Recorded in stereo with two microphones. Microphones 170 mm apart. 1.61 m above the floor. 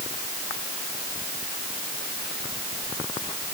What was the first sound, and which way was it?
Only background noise.